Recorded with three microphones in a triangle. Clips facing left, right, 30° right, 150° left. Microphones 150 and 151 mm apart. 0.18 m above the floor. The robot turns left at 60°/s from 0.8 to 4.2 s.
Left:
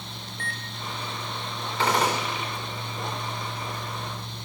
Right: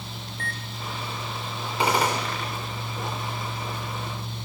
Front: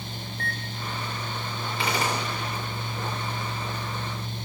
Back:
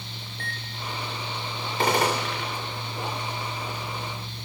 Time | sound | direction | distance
0.3 | a microwave | 55° right | 1.6 m
1.8 | a gunshot | 160° right | 3 m